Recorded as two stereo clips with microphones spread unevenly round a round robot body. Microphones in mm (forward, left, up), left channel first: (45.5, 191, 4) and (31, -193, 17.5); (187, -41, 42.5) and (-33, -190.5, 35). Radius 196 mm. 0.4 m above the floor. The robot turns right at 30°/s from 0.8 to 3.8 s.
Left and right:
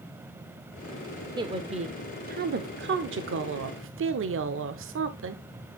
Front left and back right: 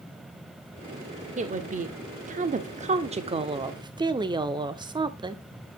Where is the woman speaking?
165° right, 0.8 m; by 5.4 s 90° right, 0.8 m.